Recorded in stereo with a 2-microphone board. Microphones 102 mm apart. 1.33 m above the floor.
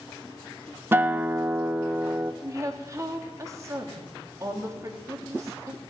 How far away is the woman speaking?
About 3 m.